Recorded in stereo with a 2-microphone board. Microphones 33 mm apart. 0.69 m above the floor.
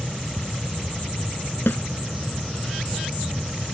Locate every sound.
1.7 s a snare drum: 85° left